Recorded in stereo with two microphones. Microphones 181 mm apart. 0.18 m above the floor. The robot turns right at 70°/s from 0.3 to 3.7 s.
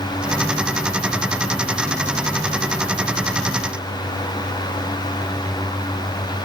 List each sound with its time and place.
Only background noise.